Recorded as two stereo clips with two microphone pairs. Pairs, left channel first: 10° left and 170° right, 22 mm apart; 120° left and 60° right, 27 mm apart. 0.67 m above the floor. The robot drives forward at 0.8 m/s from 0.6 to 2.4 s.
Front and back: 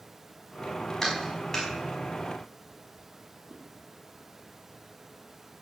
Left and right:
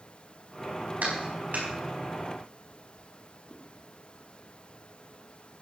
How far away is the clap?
About 5 m.